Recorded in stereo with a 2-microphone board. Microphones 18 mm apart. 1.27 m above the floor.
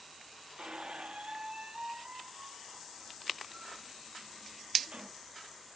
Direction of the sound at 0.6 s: 60° right (ahead or behind).